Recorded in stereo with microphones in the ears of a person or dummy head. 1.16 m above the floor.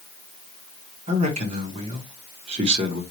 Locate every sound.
1.1 s a man speaking: 35° right (ahead or behind), 0.9 m